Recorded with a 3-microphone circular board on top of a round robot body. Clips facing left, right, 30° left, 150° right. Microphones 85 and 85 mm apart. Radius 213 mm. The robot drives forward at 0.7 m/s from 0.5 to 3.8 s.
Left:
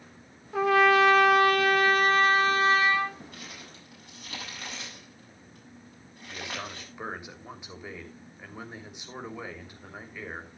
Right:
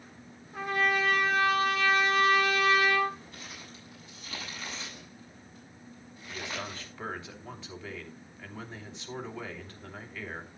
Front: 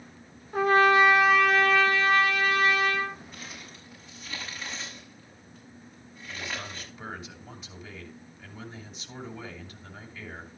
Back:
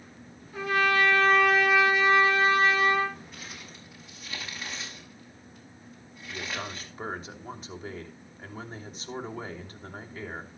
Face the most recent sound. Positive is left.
turn(degrees=165)